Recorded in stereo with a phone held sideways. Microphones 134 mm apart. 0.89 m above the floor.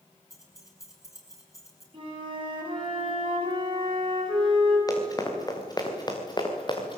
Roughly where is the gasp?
No gasp in this recording.